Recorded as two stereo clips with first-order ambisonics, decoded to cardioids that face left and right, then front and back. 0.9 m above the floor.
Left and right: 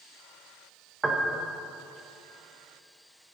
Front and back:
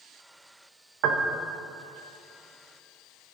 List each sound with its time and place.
1.0 s a piano: 170° right, 0.9 m